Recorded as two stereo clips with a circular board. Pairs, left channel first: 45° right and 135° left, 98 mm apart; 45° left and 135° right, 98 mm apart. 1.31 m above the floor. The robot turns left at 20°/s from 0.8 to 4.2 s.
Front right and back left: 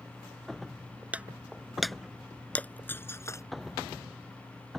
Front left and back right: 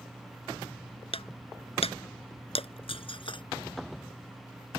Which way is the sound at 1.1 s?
60° left.